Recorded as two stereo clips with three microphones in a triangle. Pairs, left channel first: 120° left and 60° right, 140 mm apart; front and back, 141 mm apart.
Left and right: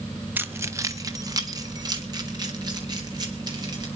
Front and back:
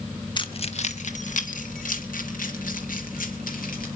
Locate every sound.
0.4 s keys jangling: 5° left, 1.0 m; by 3.9 s straight ahead, 5 m